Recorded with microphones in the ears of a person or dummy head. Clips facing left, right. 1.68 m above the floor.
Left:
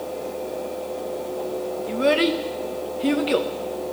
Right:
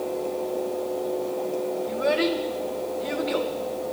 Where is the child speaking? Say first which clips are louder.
Left 5 dB; 45° left (ahead or behind), 1.2 m.